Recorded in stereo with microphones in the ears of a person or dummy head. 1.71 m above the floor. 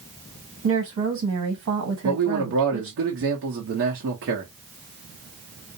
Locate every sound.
0.6 s a woman speaking: 70° right (ahead or behind), 1.3 m
2.0 s a man speaking: 65° right (ahead or behind), 0.8 m